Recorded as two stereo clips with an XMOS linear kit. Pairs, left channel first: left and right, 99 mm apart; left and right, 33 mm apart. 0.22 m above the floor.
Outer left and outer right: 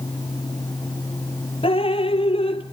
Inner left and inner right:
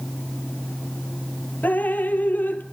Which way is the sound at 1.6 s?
70° left (ahead or behind).